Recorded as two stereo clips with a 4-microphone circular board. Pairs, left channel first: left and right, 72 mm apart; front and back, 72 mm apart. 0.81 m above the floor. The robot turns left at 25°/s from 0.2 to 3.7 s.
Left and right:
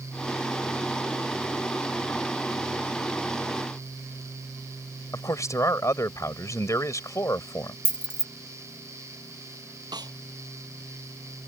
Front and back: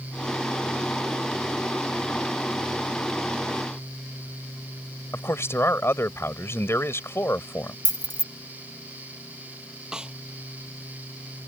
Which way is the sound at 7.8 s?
15° right.